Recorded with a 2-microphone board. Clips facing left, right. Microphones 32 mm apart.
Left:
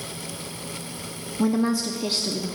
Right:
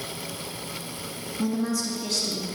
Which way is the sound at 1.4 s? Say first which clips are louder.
Left 5 dB; 35° left (ahead or behind).